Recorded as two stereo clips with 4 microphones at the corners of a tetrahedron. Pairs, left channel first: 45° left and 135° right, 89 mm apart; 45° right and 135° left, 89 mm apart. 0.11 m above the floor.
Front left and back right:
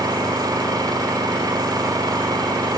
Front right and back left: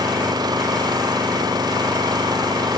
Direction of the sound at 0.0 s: Straight behind.